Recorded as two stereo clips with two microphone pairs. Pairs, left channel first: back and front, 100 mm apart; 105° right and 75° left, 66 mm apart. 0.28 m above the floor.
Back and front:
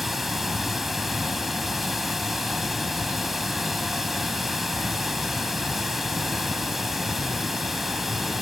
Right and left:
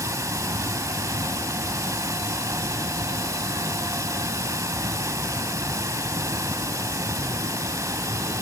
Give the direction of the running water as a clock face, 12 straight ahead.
9 o'clock.